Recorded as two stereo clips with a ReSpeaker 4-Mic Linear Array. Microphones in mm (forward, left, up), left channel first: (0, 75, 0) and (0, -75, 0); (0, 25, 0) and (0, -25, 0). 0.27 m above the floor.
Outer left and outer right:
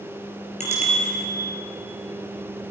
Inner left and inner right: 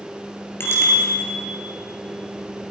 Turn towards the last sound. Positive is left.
turn(degrees=50)  # may be behind; listen again after turning